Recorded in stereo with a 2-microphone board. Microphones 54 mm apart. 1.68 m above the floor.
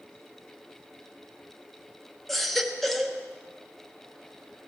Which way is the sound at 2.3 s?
5° left (ahead or behind).